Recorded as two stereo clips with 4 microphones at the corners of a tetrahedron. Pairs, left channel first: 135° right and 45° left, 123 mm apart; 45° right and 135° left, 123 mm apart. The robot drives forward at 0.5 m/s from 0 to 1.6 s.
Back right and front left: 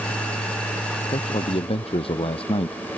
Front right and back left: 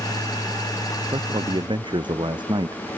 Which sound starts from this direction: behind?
A man speaking, at 1.1 s.